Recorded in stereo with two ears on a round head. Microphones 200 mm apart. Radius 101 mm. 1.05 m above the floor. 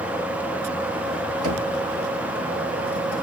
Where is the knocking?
65° right (ahead or behind), 2.5 m.